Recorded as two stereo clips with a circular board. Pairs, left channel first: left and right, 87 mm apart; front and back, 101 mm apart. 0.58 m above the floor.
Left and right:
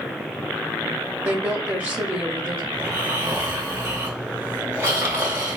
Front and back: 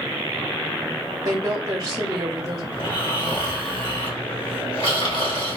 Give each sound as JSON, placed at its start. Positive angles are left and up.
{"t": 1.2, "sound": "a woman speaking", "azimuth_deg": -145, "distance_m": 0.8}
{"t": 2.7, "sound": "snoring", "azimuth_deg": -25, "distance_m": 1.3}